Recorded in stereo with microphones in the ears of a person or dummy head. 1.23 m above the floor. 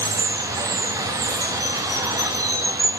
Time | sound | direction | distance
0.0 | running water | 20° right (ahead or behind) | 0.9 m